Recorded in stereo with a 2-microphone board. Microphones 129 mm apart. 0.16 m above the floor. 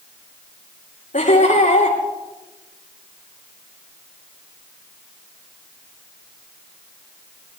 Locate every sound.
1.1 s laughter: 85° left, 9.5 m